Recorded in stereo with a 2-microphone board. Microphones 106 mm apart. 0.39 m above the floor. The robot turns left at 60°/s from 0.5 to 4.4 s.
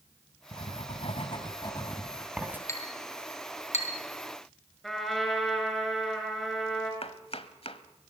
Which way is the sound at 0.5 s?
65° left (ahead or behind).